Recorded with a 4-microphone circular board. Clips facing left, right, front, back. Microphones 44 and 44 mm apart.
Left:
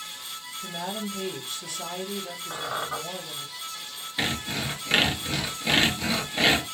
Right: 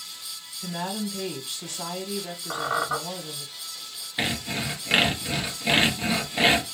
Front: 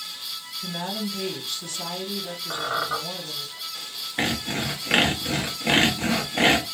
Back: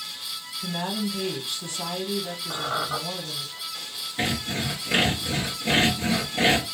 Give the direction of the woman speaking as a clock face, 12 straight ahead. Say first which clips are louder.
Right 3 dB, back 2 dB; 4 o'clock.